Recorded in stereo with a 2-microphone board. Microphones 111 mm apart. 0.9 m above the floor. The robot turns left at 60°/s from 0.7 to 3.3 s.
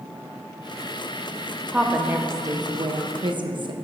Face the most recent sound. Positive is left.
turn(degrees=-100)